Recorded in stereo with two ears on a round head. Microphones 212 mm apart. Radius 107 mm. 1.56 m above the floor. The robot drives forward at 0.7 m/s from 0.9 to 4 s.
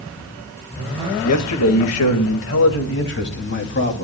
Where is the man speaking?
80° left, 2 m; by 4.0 s 45° left (ahead or behind), 3 m.